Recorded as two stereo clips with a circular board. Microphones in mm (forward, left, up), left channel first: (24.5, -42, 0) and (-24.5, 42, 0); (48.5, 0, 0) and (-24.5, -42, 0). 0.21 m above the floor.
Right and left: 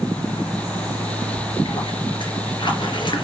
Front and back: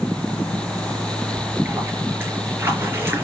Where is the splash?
90° right, 4.5 m.